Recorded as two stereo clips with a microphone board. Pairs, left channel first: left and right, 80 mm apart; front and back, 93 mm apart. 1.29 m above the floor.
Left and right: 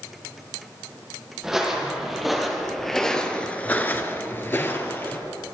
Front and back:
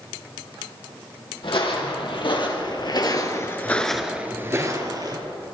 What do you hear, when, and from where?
1.4 s footsteps: 5° right, 3.5 m; by 5.2 s 150° left, 2.5 m